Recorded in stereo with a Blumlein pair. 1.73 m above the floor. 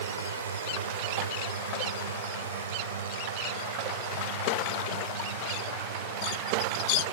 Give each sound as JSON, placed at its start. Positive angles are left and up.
{"t": 0.0, "sound": "a drone", "azimuth_deg": -65}